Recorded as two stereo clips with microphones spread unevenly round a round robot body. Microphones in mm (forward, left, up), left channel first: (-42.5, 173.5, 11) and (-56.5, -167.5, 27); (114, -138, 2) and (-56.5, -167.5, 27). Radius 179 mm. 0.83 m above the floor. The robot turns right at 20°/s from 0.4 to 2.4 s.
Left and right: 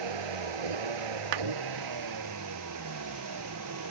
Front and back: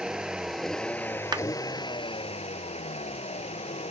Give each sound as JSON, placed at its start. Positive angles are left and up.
{"t": 0.0, "sound": "a vehicle", "azimuth_deg": -85}
{"t": 1.3, "sound": "a clap", "azimuth_deg": -100}